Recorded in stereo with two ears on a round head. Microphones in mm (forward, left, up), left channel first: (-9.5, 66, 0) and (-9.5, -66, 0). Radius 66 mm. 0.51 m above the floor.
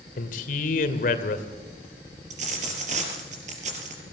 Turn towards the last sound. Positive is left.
turn(degrees=-50)  # may be behind; listen again after turning